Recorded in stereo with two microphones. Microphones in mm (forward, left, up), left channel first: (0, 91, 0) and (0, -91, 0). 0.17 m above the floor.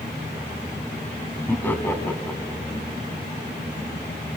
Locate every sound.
1.5 s laughter: 10° left (ahead or behind), 1.6 m